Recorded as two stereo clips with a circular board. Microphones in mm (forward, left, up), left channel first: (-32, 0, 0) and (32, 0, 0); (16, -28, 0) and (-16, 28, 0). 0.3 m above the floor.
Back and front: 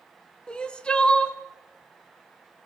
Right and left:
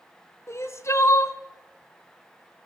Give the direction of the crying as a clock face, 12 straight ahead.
4 o'clock.